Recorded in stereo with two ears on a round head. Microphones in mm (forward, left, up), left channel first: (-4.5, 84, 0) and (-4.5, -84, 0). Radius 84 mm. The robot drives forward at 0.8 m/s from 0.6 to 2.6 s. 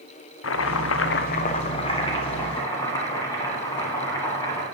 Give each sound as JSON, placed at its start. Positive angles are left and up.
{"t": 0.4, "sound": "chopping", "side_deg": 75, "distance_m": 0.5}